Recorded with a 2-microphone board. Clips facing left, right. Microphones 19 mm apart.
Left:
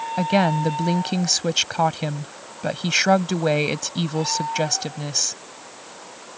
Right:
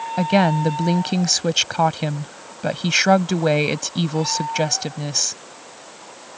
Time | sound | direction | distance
0.2 | a woman speaking | 5° right (ahead or behind) | ?